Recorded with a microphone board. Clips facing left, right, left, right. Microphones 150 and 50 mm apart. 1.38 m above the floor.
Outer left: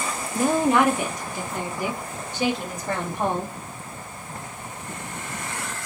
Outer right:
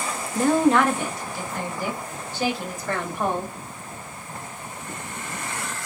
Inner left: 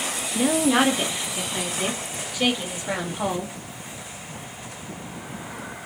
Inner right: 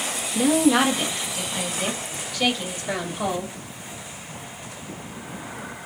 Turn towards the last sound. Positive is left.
turn(degrees=20)  # may be behind; listen again after turning